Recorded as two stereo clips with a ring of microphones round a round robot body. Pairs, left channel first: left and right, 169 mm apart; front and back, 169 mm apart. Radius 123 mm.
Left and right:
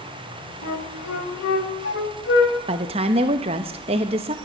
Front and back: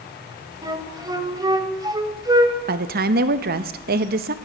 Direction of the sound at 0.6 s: 115° left.